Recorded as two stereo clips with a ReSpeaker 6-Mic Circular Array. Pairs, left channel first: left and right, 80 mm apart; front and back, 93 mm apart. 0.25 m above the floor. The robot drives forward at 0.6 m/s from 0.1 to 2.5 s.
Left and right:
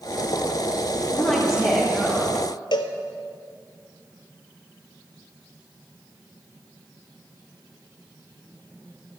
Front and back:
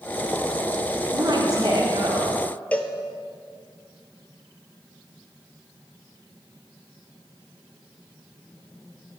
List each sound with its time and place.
1.1 s a woman speaking: 170° left, 1.9 m; by 2.4 s 175° left, 2.5 m
2.7 s a cowbell: 75° left, 0.7 m